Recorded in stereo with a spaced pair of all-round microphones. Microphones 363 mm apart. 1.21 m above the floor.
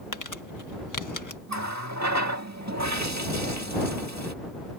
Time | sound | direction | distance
0.1 | crumpling | 55° left (ahead or behind) | ?
1.5 | a running tap | 50° right (ahead or behind) | ?